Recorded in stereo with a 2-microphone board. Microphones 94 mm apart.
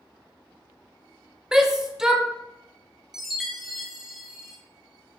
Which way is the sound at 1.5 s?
5° right (ahead or behind).